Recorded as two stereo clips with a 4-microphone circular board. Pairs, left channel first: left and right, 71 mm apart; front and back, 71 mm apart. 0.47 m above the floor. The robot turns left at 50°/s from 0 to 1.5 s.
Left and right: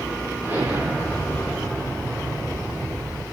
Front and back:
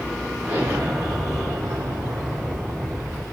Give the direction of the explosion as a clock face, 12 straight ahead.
4 o'clock.